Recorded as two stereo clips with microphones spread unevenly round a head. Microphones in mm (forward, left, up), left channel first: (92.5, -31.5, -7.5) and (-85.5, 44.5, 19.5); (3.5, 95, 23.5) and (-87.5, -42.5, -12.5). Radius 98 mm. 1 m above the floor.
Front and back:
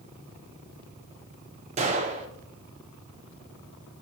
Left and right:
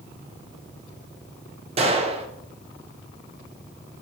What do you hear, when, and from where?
1.8 s a gunshot: 175° right, 0.6 m